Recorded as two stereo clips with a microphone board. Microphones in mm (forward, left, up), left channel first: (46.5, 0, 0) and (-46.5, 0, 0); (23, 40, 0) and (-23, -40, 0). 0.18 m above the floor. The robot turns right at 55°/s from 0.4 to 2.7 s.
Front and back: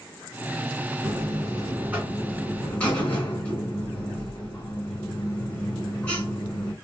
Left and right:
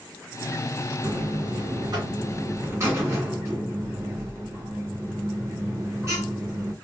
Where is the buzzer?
160° right, 2.5 m; by 6.7 s 70° right, 2.5 m.